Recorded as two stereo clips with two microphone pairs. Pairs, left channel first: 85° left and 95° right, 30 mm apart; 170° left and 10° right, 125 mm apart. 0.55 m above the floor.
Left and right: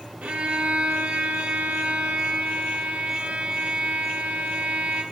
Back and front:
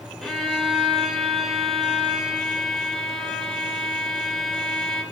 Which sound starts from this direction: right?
A violin, at 0.2 s.